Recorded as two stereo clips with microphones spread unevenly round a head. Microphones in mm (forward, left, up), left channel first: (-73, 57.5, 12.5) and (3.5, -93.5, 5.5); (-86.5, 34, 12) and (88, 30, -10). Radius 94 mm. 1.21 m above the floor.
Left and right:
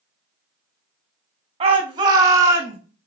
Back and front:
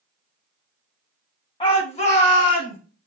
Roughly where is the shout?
Behind right.